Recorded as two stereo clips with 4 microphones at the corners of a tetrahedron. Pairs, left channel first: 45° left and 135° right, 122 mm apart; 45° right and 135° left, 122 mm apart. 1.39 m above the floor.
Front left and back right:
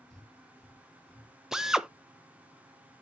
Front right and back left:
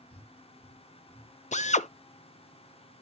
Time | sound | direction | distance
0.1 | breathing | 40° right | 1.9 m
1.5 | a drill | 50° right | 0.5 m